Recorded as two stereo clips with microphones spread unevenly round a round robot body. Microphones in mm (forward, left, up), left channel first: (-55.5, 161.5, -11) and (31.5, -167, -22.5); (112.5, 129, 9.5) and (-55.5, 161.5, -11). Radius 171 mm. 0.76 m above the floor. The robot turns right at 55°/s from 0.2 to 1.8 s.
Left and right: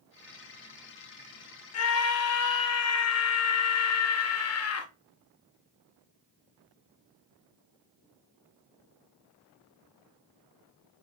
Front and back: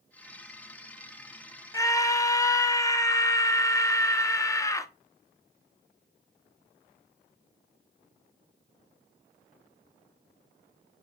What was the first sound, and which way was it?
A scream, 60° left.